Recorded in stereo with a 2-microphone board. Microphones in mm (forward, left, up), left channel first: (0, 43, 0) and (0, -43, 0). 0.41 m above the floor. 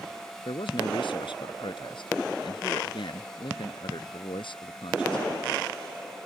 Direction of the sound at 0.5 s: 75° left (ahead or behind).